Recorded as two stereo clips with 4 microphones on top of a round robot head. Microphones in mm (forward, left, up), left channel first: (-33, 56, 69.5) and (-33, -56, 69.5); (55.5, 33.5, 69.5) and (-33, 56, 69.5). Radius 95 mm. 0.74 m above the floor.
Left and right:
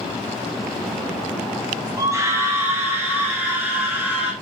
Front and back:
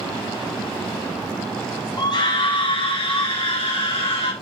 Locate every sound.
2.0 s a scream: 40° right, 1.3 m; by 4.3 s 5° right, 2.5 m